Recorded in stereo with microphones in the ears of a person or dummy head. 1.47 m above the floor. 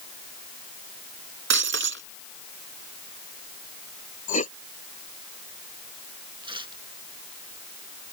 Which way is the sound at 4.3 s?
40° left (ahead or behind).